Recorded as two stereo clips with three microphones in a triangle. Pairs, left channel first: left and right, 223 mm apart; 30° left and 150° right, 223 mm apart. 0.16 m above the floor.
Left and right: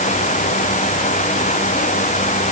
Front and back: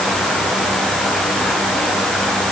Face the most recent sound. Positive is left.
No sound to turn to.